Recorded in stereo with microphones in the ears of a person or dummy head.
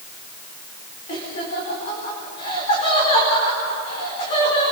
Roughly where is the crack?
No crack in this recording.